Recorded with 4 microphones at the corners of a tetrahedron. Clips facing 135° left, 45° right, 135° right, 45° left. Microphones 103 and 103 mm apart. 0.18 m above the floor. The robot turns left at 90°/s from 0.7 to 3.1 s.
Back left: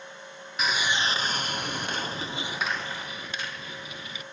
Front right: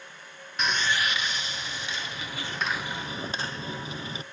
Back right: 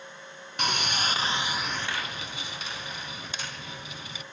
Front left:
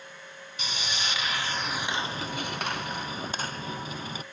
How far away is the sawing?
About 0.8 m.